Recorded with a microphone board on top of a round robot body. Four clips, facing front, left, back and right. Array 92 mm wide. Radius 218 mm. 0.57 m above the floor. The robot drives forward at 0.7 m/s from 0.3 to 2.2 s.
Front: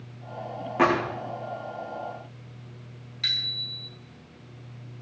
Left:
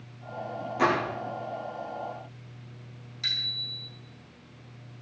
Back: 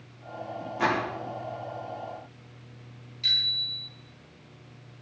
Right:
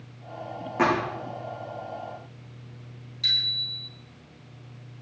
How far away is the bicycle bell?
About 5 m.